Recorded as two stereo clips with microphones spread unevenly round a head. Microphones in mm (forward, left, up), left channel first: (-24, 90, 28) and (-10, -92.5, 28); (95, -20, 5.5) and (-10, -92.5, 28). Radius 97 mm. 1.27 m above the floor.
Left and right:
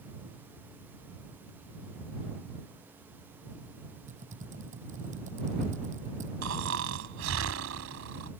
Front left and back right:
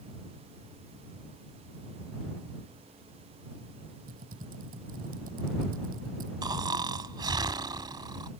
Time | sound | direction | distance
4.1 | typing on a keyboard | 140° right | ?
6.4 | snoring | 95° right | ?